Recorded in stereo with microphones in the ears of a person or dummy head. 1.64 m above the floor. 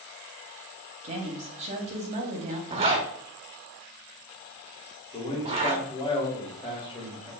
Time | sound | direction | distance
1.0 | a woman speaking | 40° right (ahead or behind) | 0.8 m
2.7 | a zipper | 30° right (ahead or behind) | 0.6 m
5.1 | a man speaking | 25° left (ahead or behind) | 1.5 m